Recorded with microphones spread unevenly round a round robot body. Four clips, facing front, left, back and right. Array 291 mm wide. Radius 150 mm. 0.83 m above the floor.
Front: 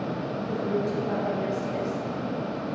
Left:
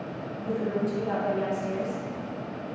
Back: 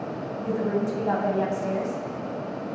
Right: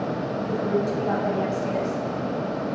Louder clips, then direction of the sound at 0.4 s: Right 2 dB, back 3 dB; 150° right.